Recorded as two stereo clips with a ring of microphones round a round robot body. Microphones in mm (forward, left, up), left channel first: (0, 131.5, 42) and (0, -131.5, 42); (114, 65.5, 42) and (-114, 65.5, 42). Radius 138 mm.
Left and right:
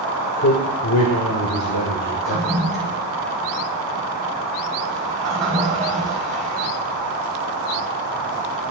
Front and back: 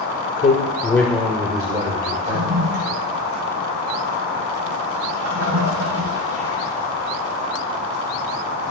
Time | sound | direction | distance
0.4 | a man speaking | 50° left | 1.4 m
2.2 | a toilet flushing | straight behind | 4.5 m